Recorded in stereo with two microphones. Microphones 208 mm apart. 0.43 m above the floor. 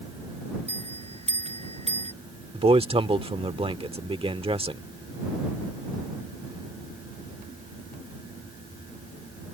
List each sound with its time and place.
0.7 s a bell: 30° right (ahead or behind)
2.5 s a man speaking: 25° right (ahead or behind)